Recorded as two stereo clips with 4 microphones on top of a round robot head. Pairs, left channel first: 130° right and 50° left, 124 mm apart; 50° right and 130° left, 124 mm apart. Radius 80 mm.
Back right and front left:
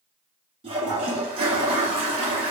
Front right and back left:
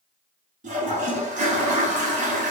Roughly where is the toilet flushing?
Left.